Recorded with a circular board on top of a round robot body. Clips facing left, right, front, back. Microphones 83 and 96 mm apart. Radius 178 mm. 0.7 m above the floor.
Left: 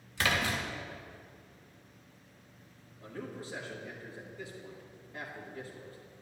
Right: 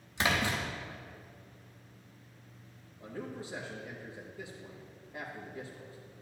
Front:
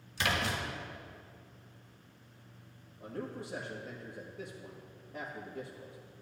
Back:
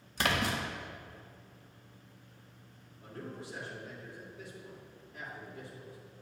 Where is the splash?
150° right, 1.8 m.